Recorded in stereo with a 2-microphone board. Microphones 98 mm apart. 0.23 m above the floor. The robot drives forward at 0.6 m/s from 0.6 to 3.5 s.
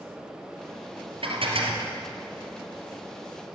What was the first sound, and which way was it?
Dishes clattering, 70° right (ahead or behind).